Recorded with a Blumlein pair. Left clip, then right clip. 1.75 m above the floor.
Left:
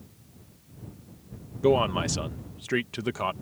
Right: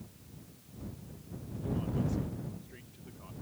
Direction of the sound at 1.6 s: 45° left.